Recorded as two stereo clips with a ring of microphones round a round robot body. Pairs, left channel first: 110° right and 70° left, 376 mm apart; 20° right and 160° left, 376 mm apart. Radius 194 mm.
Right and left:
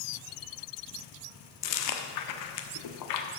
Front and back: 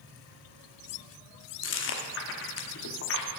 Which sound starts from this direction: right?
Chewing, at 1.6 s.